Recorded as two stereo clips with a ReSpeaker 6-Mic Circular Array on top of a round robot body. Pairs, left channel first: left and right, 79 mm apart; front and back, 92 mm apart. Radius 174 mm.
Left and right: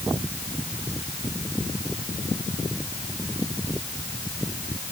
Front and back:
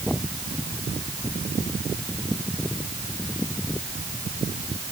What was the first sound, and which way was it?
Only background noise.